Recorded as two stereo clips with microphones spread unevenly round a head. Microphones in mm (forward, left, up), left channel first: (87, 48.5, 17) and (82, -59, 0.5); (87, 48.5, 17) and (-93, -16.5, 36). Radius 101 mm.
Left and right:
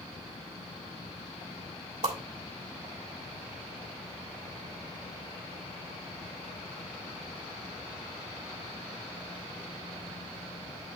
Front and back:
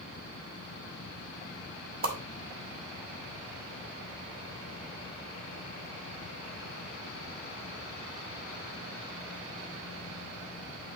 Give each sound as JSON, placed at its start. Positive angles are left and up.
{"t": 2.0, "sound": "a whoosh", "azimuth_deg": -130, "distance_m": 1.5}